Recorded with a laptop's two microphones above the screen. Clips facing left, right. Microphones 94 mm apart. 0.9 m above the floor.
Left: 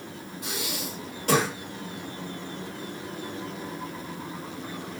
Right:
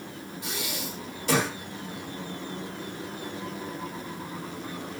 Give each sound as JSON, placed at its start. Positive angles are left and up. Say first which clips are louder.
{"t": 0.4, "sound": "breathing", "louder": "left 1 dB", "side_deg": 55, "distance_m": 1.7}